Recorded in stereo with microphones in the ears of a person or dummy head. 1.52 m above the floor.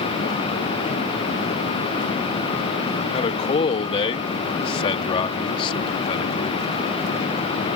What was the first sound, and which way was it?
A man speaking, 30° left (ahead or behind).